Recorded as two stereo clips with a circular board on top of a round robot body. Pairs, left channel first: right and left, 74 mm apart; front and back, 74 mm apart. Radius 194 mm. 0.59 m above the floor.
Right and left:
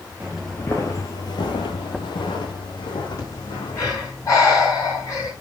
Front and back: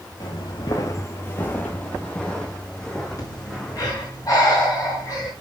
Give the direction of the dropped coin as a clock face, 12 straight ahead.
No dropped coin in this recording.